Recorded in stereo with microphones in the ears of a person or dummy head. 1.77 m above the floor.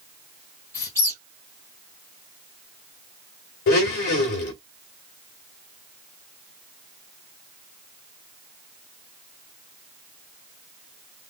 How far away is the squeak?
About 0.8 m.